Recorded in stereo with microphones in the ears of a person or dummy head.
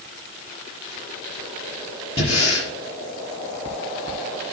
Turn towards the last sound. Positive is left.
turn(degrees=35)  # may be behind; listen again after turning